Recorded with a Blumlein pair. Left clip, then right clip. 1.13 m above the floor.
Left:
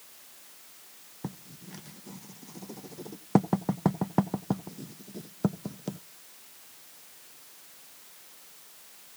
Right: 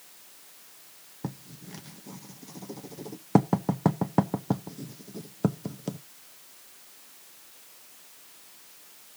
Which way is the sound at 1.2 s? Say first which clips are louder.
Right 2 dB; 5° right.